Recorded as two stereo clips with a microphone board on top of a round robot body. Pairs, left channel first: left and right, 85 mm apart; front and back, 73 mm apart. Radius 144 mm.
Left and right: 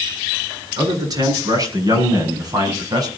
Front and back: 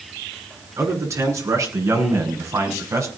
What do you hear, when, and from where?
0.8 s a man speaking: 135° right, 9 m; by 3.1 s 130° right, 6 m